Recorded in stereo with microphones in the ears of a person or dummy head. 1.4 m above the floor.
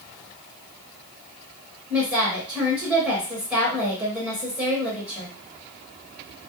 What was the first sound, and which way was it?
A woman speaking, 5° right (ahead or behind).